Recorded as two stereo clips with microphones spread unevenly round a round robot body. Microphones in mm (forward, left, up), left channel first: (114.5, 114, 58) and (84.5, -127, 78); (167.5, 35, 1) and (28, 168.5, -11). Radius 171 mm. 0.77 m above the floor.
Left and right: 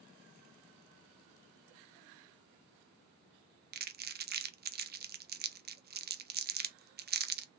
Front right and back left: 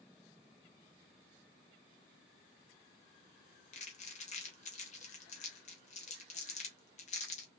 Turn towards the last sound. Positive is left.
turn(degrees=-70)